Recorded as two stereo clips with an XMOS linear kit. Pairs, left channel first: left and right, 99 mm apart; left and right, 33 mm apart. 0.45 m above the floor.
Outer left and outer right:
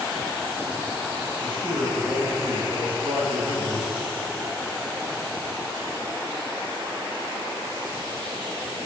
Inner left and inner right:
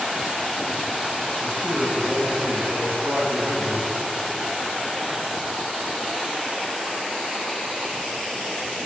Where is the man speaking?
55° right (ahead or behind), 2 m.